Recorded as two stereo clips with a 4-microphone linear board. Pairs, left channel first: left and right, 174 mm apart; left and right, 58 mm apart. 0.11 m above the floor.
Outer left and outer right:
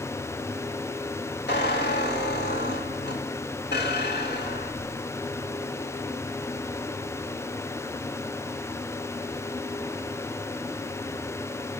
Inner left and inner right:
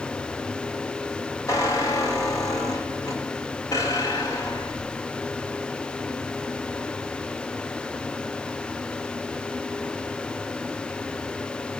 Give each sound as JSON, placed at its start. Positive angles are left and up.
{"t": 1.5, "sound": "a squeak", "side_deg": 75, "distance_m": 3.5}